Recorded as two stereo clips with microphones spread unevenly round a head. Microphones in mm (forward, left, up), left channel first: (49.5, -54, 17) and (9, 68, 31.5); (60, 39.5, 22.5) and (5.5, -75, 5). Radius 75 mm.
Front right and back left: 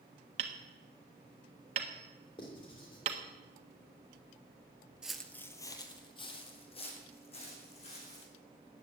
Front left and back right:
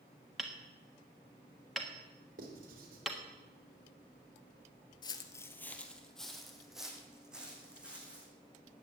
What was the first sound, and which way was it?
Hammering, 155° left.